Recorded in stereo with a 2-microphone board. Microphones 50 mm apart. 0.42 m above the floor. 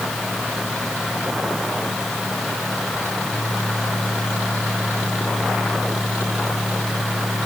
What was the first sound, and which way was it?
Only background noise.